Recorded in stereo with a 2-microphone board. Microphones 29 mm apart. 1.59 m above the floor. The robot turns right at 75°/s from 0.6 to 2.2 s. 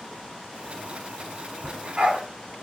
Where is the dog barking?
20° right (ahead or behind), 1.5 m; by 2.2 s 40° right (ahead or behind), 1.5 m.